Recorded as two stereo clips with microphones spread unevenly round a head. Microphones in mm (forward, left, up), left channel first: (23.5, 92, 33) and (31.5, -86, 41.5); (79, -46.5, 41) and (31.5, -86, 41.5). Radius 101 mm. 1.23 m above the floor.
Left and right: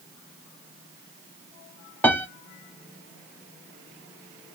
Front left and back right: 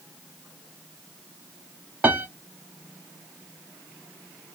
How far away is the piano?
About 0.6 m.